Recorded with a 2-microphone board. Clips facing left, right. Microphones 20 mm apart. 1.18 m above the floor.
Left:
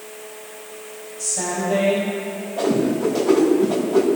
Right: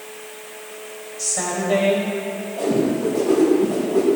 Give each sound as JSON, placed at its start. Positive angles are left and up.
{"t": 1.2, "sound": "a woman speaking", "side_deg": -65, "distance_m": 5.5}
{"t": 2.6, "sound": "a whoosh", "side_deg": 45, "distance_m": 4.5}